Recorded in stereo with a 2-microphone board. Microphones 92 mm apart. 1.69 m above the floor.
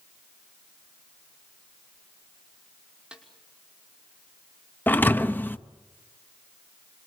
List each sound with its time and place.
3.1 s a snare drum: 10° right (ahead or behind), 5.5 m
4.9 s a thud: 20° left (ahead or behind), 0.9 m